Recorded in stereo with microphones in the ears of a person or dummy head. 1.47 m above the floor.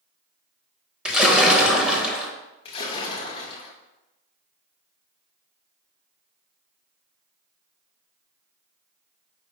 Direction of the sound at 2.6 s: 25° left (ahead or behind).